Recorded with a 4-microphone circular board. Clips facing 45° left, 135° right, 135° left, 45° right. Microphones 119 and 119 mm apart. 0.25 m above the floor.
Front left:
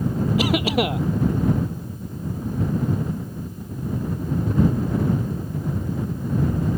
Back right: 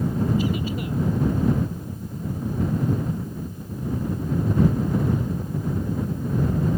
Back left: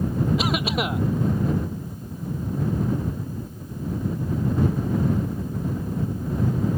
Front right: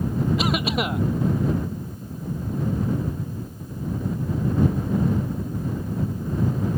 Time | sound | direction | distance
0.4 | a cough | 45° left | ?